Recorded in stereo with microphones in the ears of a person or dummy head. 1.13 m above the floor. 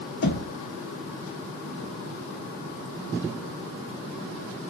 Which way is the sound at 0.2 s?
60° left (ahead or behind).